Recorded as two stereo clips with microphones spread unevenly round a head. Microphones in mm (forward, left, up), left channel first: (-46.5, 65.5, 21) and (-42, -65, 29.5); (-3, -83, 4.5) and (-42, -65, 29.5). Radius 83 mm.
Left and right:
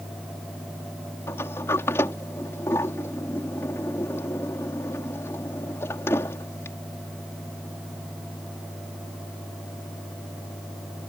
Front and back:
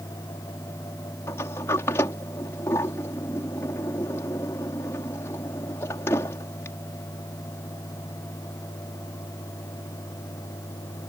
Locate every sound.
1.3 s a sliding door: 15° left